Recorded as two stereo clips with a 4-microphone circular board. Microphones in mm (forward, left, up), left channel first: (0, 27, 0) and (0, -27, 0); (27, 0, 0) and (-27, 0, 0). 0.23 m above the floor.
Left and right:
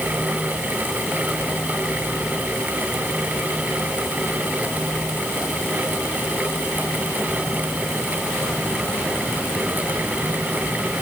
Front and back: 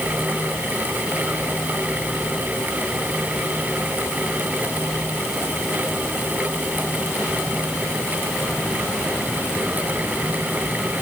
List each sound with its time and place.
Only background noise.